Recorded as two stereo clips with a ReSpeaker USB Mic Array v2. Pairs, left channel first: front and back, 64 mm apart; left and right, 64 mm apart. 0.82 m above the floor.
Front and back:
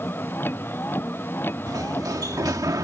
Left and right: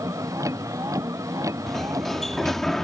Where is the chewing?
I don't hear chewing.